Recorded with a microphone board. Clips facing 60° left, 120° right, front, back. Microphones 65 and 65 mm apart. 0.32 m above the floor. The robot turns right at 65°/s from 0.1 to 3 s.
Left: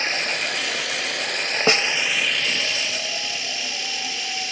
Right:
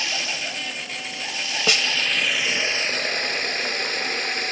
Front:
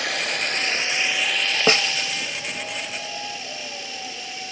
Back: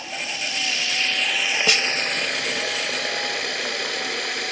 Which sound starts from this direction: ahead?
Running water, at 0.0 s.